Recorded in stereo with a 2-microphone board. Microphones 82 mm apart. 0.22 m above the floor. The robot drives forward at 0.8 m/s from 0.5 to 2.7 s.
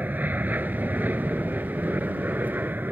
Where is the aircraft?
20° right (ahead or behind); by 2.9 s 25° right (ahead or behind).